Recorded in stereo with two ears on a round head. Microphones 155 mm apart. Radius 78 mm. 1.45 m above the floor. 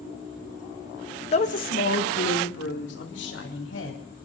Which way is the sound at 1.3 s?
35° left (ahead or behind).